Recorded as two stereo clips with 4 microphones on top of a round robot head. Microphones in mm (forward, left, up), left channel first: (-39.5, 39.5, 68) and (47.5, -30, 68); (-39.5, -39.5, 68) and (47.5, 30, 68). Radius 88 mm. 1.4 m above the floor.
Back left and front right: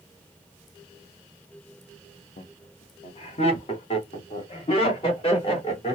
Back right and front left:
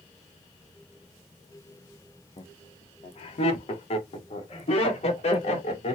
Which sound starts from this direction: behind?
Laughter, at 2.4 s.